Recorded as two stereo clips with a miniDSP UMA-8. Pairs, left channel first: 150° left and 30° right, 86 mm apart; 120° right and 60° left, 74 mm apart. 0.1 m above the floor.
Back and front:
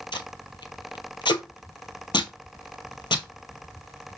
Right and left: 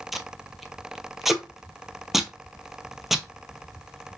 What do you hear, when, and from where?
0.1 s tape being pulled: 145° left, 0.6 m